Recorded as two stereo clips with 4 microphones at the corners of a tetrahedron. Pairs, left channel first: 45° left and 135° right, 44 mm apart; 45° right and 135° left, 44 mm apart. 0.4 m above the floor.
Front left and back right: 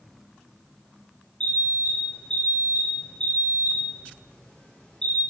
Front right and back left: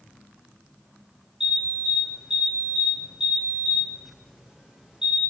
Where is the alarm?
85° left, 1.8 m.